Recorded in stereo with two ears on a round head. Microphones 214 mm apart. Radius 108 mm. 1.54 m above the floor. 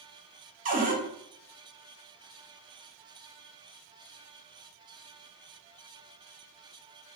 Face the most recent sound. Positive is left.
turn(degrees=-35)  # may be behind; listen again after turning